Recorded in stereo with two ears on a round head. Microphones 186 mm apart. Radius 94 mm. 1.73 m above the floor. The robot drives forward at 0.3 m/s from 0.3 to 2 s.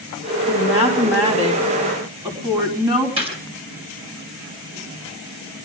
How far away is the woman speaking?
About 4.5 m.